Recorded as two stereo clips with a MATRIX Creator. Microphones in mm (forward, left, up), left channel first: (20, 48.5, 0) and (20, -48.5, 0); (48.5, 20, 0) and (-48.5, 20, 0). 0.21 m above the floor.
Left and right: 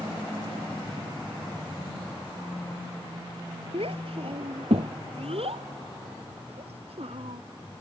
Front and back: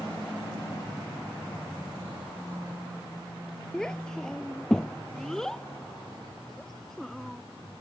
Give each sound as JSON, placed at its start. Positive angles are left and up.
{"t": 3.7, "sound": "a child speaking", "azimuth_deg": -85}